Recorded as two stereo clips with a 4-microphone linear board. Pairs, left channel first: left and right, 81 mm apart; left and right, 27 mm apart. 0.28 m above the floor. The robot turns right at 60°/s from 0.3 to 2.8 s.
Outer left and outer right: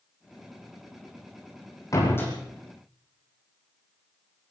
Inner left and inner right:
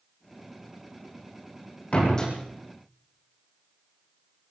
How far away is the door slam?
About 8.5 m.